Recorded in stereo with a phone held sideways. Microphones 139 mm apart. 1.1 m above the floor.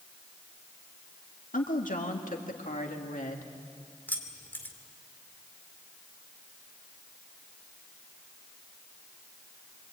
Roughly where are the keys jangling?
Centre.